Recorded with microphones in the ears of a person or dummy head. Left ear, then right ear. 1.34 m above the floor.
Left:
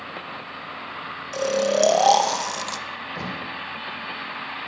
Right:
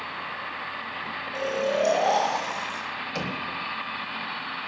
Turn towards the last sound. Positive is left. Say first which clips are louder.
# right 1 dB
turn(degrees=-55)  # may be behind; listen again after turning